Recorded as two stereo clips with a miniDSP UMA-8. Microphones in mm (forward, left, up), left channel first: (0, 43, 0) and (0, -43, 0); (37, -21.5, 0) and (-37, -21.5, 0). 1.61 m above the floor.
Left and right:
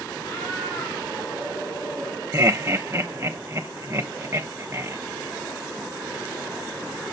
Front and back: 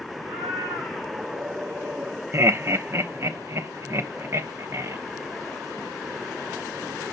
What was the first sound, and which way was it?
A cat meowing, 145° left.